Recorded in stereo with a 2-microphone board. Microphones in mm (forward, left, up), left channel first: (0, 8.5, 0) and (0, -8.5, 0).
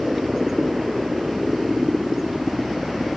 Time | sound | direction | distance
0.0 | a helicopter | 35° right (ahead or behind) | ?